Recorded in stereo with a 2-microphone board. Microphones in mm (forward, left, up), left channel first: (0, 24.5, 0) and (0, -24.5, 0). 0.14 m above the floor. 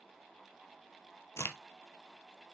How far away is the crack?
About 0.8 m.